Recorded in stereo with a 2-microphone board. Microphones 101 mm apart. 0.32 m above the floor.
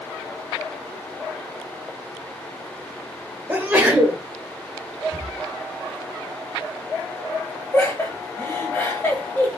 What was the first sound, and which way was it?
A sneeze, 20° right (ahead or behind).